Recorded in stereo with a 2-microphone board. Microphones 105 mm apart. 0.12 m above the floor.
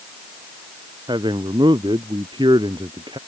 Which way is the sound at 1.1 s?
50° right (ahead or behind).